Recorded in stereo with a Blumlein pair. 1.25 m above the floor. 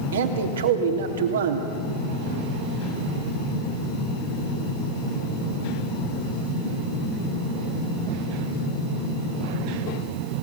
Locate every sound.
0.1 s a man speaking: 60° right, 3.5 m